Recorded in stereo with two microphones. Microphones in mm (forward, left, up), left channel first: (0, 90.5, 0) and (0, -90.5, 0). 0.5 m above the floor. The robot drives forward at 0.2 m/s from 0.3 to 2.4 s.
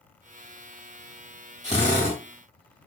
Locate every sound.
1.6 s a drill: 45° right (ahead or behind), 1.9 m; by 2.2 s 40° right (ahead or behind), 2.0 m